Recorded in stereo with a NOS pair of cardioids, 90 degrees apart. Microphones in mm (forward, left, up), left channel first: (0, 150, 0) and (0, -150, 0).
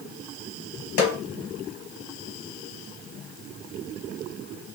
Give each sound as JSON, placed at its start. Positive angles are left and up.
{"t": 1.0, "sound": "a snare drum", "azimuth_deg": 55, "distance_m": 1.3}